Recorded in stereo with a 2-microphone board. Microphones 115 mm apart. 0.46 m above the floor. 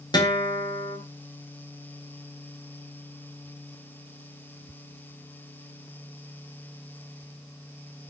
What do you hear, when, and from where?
0.1 s a guitar: 40° left (ahead or behind), 2.5 m